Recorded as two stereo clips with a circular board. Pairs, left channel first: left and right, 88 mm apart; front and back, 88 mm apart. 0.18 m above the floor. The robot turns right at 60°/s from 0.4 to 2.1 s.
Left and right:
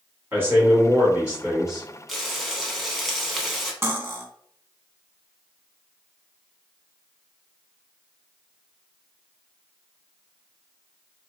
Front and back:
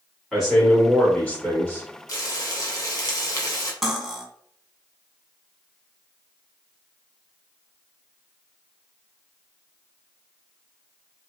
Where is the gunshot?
I don't hear a gunshot.